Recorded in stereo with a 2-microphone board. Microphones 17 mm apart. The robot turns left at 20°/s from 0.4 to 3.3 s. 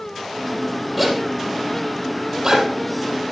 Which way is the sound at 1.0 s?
15° right (ahead or behind).